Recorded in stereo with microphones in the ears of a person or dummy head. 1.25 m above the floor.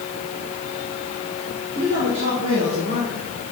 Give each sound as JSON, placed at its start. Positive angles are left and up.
{"t": 1.8, "sound": "a man speaking", "side_deg": -65, "distance_m": 3.0}